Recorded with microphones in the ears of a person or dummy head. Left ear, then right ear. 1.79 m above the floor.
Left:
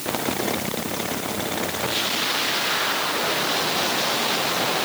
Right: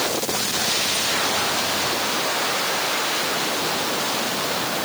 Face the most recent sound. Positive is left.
No sound to turn to.